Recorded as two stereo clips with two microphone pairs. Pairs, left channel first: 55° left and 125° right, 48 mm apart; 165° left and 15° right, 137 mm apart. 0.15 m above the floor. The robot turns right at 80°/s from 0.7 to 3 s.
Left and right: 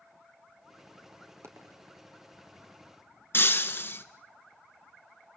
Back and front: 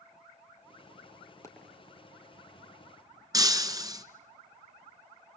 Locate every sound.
1.4 s a dropped coin: 130° right, 3.5 m; by 1.8 s 100° right, 3.5 m
3.3 s breaking glass: 40° left, 1.4 m